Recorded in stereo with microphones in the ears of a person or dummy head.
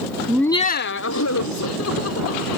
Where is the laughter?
15° right (ahead or behind); by 2.6 s 90° left.